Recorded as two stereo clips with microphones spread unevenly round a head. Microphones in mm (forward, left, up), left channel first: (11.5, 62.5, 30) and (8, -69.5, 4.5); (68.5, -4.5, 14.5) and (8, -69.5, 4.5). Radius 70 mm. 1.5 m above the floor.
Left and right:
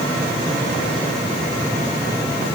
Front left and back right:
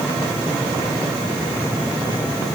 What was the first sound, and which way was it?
Only background noise.